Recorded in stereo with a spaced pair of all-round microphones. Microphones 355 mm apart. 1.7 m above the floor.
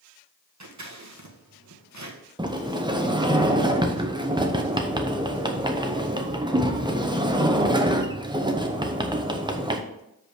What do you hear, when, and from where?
0.6 s scissors: 50° right (ahead or behind), 1.2 m
2.4 s a sliding door: 15° right (ahead or behind), 0.7 m